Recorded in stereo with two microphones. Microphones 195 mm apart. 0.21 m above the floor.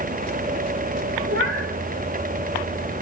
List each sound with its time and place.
1.3 s a cat meowing: 85° right, 2.5 m